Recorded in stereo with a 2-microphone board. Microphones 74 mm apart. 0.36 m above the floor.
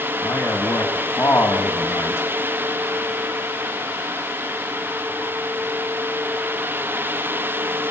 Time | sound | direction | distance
0.2 | a man speaking | 35° left (ahead or behind) | 3.5 m